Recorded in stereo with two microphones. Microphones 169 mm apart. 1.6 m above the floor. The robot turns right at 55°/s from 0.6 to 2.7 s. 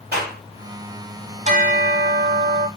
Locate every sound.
0.1 s a clap: 70° right (ahead or behind), 3 m
1.4 s a bell: 135° right, 1.0 m; by 2.7 s 70° right, 1.0 m